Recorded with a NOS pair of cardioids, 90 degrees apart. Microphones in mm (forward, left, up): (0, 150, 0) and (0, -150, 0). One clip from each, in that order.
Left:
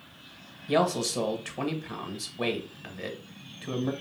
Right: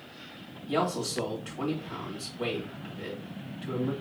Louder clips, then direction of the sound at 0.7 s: Left 4 dB; 50° left.